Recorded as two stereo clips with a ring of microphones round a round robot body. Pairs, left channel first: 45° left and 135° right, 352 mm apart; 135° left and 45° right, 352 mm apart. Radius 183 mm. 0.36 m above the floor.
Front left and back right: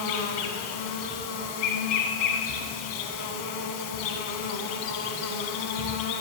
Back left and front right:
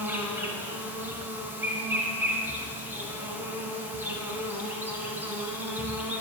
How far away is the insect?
About 1.2 m.